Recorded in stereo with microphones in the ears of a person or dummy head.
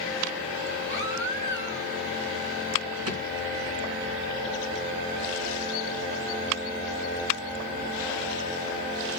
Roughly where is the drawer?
Right.